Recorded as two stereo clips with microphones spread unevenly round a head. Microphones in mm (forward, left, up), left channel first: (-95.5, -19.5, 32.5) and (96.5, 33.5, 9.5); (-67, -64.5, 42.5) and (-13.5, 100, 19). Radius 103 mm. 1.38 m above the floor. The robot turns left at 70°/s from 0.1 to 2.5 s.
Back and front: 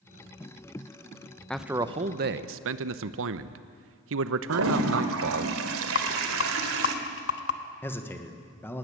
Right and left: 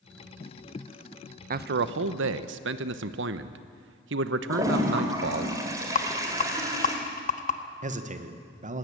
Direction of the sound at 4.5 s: 5° right.